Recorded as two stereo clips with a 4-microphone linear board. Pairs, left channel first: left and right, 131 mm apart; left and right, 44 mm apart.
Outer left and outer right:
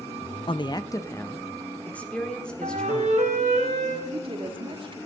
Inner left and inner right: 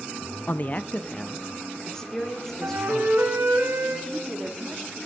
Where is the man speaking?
45° left (ahead or behind), 0.5 m; by 3.3 s 5° left (ahead or behind), 2.5 m.